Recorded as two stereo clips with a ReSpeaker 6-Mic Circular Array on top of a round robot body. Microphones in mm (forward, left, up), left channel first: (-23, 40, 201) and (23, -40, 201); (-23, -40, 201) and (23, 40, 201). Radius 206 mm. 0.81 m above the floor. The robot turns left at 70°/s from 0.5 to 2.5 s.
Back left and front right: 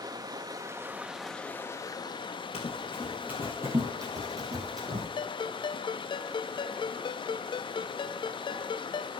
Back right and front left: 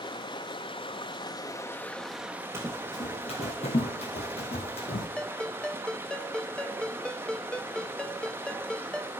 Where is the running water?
95° right, 1.1 m; by 9.2 s 125° left, 1.1 m.